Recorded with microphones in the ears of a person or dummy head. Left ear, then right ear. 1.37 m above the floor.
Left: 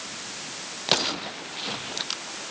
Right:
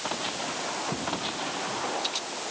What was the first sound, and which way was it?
Only background noise.